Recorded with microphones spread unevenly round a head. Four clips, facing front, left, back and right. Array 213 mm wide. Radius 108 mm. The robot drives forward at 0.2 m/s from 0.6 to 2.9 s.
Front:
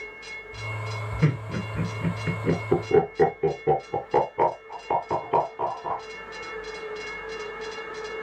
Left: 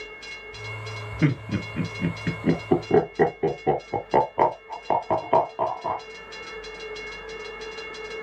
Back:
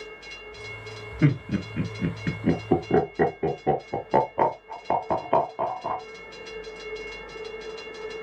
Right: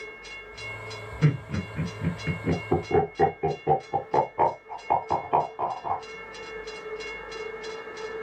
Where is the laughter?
135° left, 2.0 m; by 6.0 s 145° left, 2 m.